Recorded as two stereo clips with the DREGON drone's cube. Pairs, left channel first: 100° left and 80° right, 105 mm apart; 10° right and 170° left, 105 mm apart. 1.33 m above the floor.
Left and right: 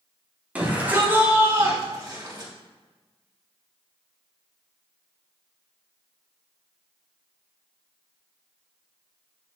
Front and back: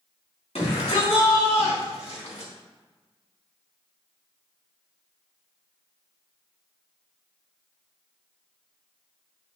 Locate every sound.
0.6 s a shout: 5° right, 3 m; by 2.5 s 30° right, 2.5 m